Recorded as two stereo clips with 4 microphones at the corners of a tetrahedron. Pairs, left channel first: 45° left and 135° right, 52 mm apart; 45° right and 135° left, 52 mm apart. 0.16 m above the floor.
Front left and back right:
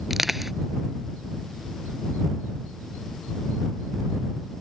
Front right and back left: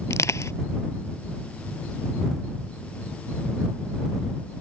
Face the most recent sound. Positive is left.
turn(degrees=-50)